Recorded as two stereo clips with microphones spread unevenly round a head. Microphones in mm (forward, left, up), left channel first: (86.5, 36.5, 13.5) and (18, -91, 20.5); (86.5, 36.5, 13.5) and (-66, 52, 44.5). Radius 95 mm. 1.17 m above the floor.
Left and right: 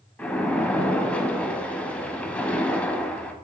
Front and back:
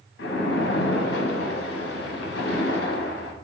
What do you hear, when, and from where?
0.2 s a splash: 20° right, 0.7 m